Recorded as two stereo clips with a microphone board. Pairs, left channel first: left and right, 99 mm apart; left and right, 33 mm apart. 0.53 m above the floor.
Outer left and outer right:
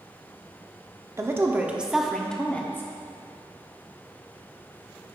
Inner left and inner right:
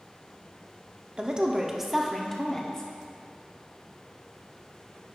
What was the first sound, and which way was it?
A woman speaking, 30° right (ahead or behind).